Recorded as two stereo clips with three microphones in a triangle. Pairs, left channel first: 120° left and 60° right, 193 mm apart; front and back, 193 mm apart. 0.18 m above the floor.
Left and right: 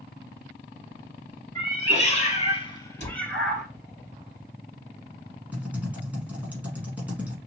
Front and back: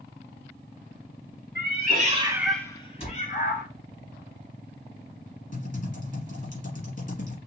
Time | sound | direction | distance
1.6 | a cat meowing | 175° left | 1.0 m
3.0 | a cupboard door | 40° right | 1.5 m
5.5 | typing on a keyboard | 20° left | 1.3 m